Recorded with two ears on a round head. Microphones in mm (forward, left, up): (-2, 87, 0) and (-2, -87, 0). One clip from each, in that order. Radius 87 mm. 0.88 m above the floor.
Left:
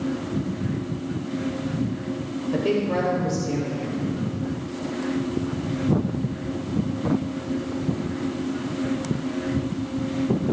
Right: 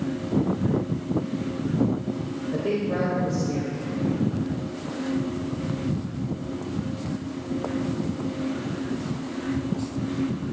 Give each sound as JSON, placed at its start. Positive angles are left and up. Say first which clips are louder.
{"t": 2.5, "sound": "a woman speaking", "louder": "left 3 dB", "side_deg": 35, "distance_m": 4.0}